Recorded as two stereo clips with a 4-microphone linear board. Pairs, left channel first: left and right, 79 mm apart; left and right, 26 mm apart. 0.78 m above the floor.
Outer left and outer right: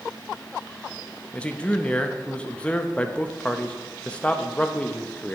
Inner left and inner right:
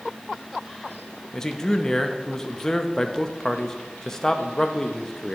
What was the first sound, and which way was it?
A man speaking, 15° left (ahead or behind).